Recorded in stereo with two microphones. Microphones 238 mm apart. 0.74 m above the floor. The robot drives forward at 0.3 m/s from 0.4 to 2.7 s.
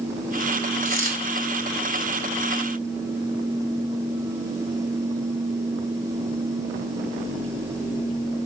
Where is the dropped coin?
35° right (ahead or behind), 1.9 m.